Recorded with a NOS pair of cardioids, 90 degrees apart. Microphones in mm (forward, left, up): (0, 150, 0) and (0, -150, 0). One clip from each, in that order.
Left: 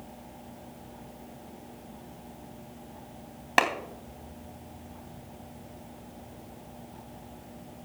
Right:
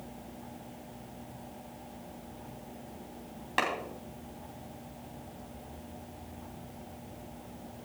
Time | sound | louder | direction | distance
3.6 | a clap | left 6 dB | 60° left | 3 m